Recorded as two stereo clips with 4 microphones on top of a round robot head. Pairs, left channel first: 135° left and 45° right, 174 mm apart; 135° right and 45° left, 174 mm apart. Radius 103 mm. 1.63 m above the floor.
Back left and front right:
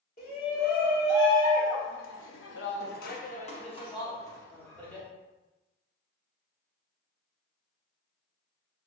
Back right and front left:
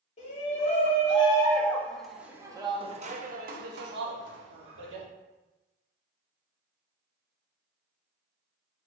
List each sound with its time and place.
0.2 s a shout: 170° left, 1.5 m; by 5.1 s 55° left, 1.6 m